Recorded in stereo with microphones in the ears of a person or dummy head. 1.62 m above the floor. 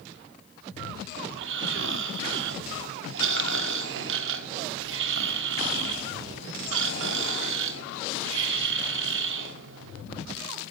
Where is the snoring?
75° right (ahead or behind), 1.3 m.